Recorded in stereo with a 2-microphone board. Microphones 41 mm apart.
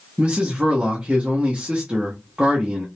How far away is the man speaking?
About 0.7 m.